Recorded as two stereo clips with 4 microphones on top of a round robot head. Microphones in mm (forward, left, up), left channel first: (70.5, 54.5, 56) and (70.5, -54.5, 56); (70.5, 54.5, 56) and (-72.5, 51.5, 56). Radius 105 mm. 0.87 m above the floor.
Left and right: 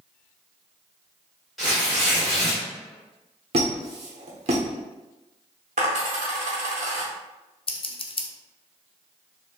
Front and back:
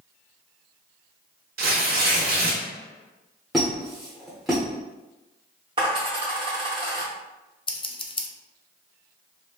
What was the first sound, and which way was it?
Tearing paper, straight behind.